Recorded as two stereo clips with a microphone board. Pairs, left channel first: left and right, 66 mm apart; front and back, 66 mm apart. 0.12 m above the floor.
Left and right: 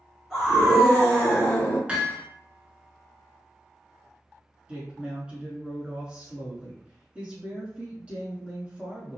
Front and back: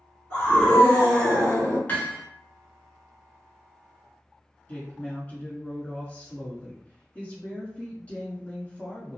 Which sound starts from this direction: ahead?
A scream, at 0.3 s.